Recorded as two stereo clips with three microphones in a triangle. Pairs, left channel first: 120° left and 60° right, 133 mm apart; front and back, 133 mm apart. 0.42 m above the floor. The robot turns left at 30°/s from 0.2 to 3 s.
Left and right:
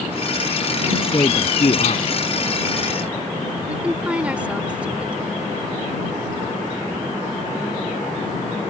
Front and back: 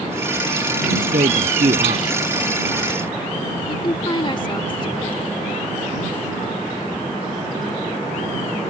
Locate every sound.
0.9 s a man speaking: 175° right; by 2.1 s 150° left
3.7 s a woman speaking: 15° left